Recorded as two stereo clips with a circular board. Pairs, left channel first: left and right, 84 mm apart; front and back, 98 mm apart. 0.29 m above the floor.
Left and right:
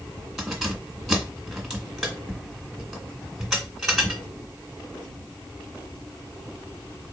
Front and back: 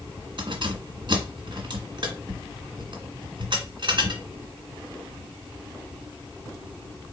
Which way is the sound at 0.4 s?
Straight behind.